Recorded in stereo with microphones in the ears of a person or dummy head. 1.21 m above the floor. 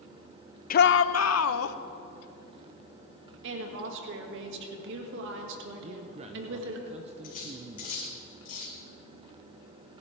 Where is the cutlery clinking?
40° left (ahead or behind), 2.5 m.